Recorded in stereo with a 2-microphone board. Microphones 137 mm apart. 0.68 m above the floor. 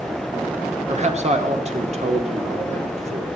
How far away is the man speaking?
About 1.8 m.